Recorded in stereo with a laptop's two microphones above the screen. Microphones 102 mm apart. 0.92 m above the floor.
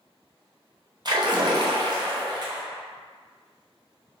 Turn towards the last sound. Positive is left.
turn(degrees=-45)  # may be behind; listen again after turning